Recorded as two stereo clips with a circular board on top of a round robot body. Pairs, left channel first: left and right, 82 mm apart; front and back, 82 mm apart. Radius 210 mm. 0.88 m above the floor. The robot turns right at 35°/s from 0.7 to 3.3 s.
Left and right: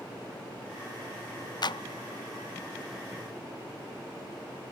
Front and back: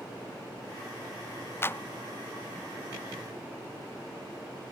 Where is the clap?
60° left; by 1.8 s 65° left.